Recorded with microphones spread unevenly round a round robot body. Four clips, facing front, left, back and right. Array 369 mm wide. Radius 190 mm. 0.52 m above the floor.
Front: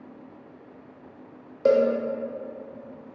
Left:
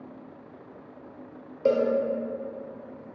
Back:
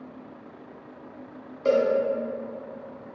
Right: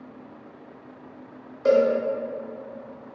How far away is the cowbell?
About 0.6 m.